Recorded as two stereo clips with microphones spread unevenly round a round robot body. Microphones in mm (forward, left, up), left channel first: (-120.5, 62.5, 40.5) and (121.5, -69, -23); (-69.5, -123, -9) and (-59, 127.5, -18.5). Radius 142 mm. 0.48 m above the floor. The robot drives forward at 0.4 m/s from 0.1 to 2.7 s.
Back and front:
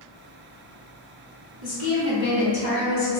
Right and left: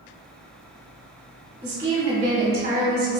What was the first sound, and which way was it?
A woman speaking, 115° left.